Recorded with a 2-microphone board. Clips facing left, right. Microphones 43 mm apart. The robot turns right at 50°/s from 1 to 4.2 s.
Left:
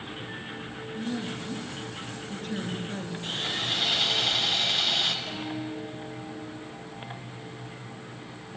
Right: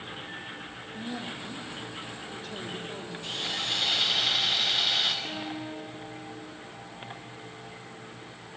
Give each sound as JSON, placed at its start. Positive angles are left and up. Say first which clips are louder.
{"t": 0.9, "sound": "a woman speaking", "louder": "left 4 dB", "azimuth_deg": 10, "distance_m": 4.0}
{"t": 3.2, "sound": "sawing", "louder": "left 1 dB", "azimuth_deg": 140, "distance_m": 3.0}
{"t": 5.2, "sound": "a guitar", "louder": "left 2 dB", "side_deg": -75, "distance_m": 9.0}